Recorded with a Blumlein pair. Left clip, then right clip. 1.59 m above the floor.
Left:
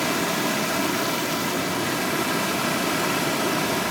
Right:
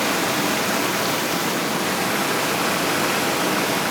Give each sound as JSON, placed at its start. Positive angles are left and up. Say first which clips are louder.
{"t": 0.0, "sound": "running water", "louder": "right 3 dB", "azimuth_deg": -15, "distance_m": 0.7}